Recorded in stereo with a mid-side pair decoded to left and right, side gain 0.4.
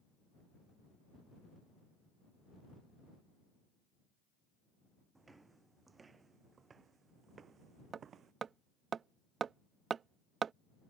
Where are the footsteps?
25° right; by 8.3 s 65° right.